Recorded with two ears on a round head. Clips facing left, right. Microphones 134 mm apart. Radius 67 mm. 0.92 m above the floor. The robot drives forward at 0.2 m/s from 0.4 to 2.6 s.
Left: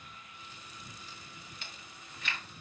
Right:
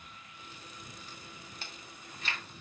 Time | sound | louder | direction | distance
1.6 | chewing | right 2 dB | 35° right (ahead or behind) | 0.7 m